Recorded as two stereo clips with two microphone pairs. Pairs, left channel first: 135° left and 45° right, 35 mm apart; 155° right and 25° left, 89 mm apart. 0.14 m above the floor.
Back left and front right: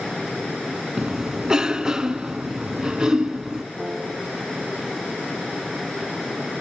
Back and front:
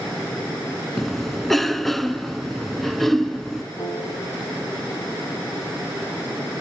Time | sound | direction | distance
1.0 | a cough | 70° right | 1.0 m
3.8 | a piano | 130° right | 4.5 m